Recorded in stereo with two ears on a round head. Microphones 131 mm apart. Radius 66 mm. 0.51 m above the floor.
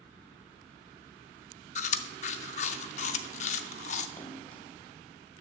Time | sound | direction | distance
1.8 | chewing | 50° left (ahead or behind) | 0.5 m
4.2 | a splash | 15° left (ahead or behind) | 1.2 m